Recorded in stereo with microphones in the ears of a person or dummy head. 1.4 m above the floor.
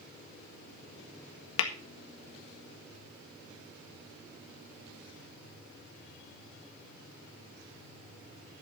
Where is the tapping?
85° left, 1.5 m.